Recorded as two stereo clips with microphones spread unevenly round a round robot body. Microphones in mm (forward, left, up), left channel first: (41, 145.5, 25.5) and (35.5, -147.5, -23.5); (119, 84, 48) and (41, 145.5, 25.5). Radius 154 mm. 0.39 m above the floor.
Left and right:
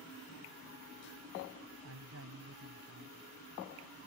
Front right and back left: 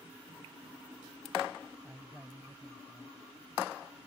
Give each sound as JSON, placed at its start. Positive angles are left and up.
{"t": 1.8, "sound": "a man speaking", "azimuth_deg": -135}